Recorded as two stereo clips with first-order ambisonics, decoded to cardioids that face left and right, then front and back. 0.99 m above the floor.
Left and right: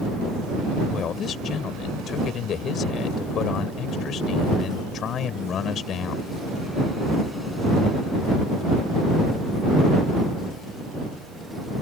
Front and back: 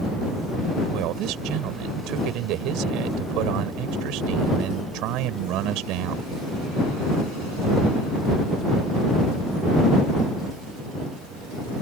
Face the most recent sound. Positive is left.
turn(degrees=150)